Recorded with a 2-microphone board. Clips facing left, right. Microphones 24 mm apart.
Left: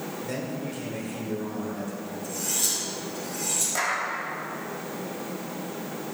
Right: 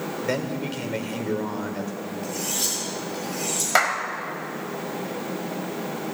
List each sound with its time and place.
0.2 s a man speaking: 50° right (ahead or behind), 1.8 m
2.2 s cutlery clinking: 65° right (ahead or behind), 7 m
3.8 s a clap: 60° right (ahead or behind), 2.5 m